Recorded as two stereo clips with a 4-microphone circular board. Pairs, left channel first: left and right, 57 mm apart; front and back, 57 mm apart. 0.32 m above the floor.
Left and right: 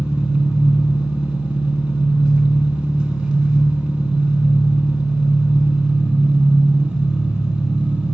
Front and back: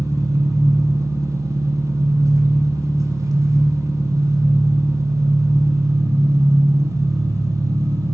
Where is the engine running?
165° right, 0.9 m.